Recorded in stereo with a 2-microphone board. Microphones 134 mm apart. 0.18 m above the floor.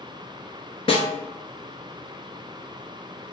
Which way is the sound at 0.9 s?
50° left (ahead or behind).